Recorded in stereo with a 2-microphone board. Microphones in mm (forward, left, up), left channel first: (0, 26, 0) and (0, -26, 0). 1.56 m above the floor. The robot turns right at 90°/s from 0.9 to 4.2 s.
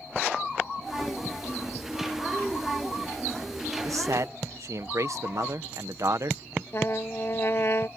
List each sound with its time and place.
3.8 s a man speaking: 105° right; by 6.6 s 70° right
6.7 s a trumpet: 50° left (ahead or behind)